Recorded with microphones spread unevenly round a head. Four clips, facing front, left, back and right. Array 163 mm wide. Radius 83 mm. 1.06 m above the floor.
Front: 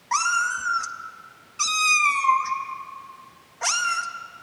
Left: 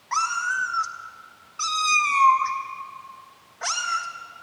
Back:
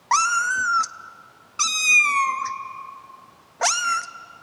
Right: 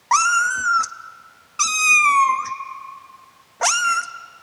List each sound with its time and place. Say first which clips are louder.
0.1 s a cat meowing: right 7 dB, back 3 dB; 125° right, 0.5 m